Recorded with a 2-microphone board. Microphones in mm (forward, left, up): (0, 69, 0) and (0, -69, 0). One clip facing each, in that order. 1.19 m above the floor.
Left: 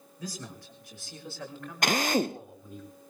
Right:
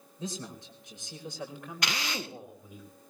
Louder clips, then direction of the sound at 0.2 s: Right 2 dB; 25° right (ahead or behind).